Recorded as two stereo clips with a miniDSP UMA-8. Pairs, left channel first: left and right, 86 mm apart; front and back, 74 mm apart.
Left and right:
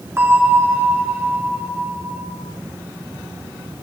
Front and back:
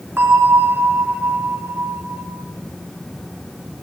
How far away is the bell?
About 2 m.